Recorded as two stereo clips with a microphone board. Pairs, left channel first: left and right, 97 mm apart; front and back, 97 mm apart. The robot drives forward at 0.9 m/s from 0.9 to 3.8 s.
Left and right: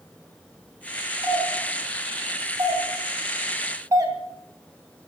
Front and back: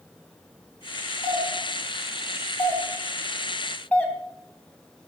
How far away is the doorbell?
About 4 m.